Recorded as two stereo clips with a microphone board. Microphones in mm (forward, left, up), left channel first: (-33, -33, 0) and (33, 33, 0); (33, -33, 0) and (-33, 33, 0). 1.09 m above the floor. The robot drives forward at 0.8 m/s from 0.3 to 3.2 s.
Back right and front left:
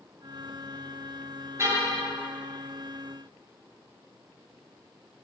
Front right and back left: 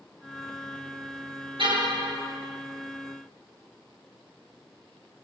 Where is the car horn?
105° left, 9.5 m; by 2.0 s 110° left, 10 m.